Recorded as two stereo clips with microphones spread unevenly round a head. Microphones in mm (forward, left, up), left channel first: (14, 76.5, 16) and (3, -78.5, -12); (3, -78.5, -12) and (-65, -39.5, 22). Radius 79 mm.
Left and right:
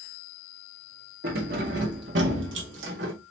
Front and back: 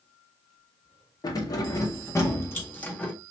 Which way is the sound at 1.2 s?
70° right.